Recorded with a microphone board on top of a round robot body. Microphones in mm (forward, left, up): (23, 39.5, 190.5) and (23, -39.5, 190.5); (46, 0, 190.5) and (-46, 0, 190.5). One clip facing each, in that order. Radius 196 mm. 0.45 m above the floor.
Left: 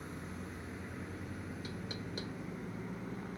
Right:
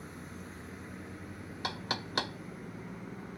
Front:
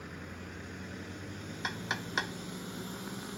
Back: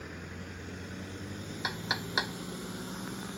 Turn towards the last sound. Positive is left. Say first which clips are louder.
# right 6 dB, back 1 dB
turn(degrees=-95)